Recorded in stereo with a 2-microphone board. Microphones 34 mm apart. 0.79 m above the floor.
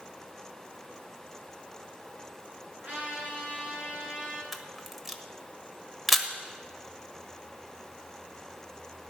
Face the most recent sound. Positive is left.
turn(degrees=-5)  # may be behind; listen again after turning